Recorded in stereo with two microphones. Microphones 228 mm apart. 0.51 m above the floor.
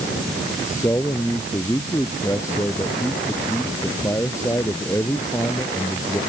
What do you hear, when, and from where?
0.7 s a man speaking: 15° left (ahead or behind)